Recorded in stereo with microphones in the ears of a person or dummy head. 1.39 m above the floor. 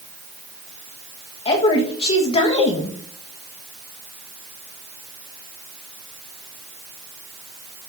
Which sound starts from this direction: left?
A woman speaking, at 1.4 s.